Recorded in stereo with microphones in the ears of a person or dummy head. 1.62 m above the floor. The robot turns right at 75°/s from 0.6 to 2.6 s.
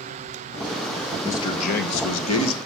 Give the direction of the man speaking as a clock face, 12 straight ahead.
12 o'clock.